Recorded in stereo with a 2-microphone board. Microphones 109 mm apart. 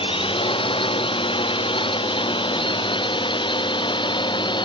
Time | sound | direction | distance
0.0 | a drone | 55° left (ahead or behind) | ?